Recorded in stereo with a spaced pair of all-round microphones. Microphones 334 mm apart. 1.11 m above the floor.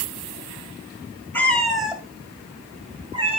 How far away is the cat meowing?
About 2.0 m.